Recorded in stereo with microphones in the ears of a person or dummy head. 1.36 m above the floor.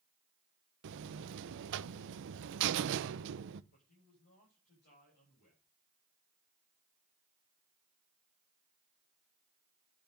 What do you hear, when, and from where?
0.8 s a buzzer: 65° right (ahead or behind), 0.8 m
3.7 s a man speaking: 45° left (ahead or behind), 8 m